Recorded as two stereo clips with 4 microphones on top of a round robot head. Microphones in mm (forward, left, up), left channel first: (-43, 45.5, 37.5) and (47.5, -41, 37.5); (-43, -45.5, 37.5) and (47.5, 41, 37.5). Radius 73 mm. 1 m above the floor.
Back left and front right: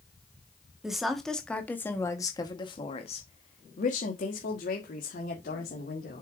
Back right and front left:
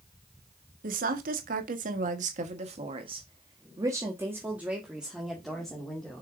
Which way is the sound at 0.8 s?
40° left.